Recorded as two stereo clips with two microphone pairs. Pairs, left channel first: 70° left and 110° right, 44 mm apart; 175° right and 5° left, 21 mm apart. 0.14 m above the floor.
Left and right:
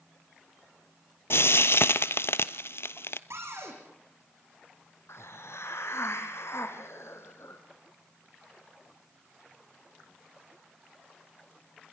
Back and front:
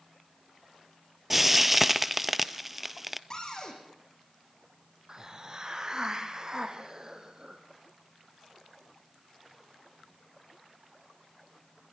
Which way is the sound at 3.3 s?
120° right.